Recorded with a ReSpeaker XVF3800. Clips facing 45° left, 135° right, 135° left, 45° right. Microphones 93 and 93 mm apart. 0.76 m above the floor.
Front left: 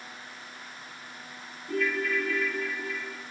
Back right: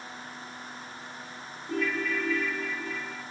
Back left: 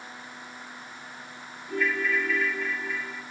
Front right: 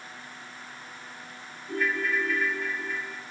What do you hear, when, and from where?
1.7 s a ringtone: 30° left, 5 m